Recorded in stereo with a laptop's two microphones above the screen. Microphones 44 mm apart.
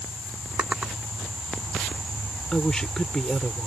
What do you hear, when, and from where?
0.6 s a drawer: 20° right (ahead or behind)
2.5 s a woman speaking: 15° left (ahead or behind)